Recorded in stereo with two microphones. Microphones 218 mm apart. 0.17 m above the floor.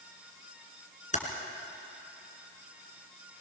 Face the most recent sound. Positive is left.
turn(degrees=35)  # may be behind; listen again after turning